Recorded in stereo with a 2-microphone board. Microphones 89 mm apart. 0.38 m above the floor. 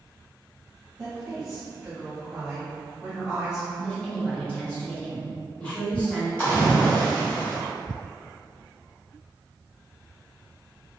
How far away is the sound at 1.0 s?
About 1.6 m.